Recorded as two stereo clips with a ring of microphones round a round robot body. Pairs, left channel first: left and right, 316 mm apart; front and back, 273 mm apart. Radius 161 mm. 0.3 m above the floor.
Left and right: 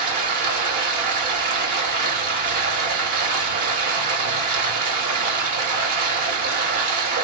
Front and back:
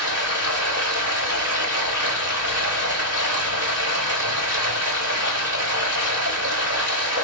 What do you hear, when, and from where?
0.0 s running water: 100° right, 2.5 m